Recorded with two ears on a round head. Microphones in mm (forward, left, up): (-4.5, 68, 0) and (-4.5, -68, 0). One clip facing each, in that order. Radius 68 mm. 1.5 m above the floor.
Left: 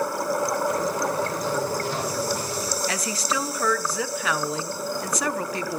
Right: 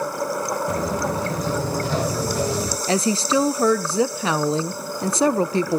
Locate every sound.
0.7 s footsteps: 65° right (ahead or behind), 4 m; by 2.8 s 55° right (ahead or behind), 3 m
2.9 s a woman speaking: 25° right (ahead or behind), 0.8 m